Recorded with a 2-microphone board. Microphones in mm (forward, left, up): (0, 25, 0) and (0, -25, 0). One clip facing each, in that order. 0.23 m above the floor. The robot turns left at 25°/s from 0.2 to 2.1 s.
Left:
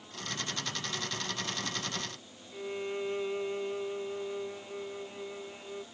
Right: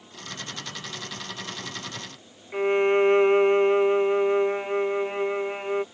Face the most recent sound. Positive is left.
turn(degrees=-60)  # may be behind; listen again after turning